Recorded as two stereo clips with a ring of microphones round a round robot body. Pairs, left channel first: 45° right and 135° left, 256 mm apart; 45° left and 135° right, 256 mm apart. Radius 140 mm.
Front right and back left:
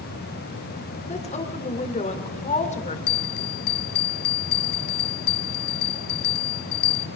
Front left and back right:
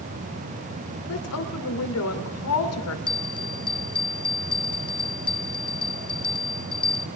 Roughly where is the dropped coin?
No dropped coin in this recording.